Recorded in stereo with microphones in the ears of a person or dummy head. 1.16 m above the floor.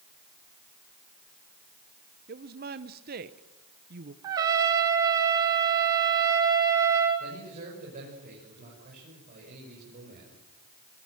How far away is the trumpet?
About 0.9 m.